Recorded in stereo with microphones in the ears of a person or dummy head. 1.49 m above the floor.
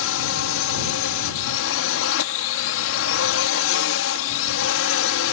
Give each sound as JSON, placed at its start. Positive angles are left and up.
{"t": 0.0, "sound": "a drone", "side_deg": 70}